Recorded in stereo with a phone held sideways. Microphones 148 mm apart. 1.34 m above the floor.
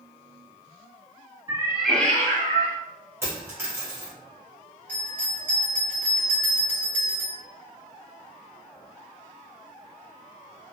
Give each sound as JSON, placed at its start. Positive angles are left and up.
{"t": 1.5, "sound": "a cat meowing", "side_deg": -30, "distance_m": 0.7}
{"t": 3.2, "sound": "a dropped coin", "side_deg": -15, "distance_m": 1.7}
{"t": 4.9, "sound": "a bell", "side_deg": 10, "distance_m": 1.4}